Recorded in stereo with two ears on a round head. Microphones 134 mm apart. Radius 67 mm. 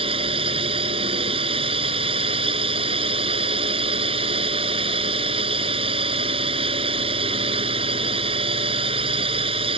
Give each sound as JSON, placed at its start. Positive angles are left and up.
{"t": 0.0, "sound": "a drone", "side_deg": -40}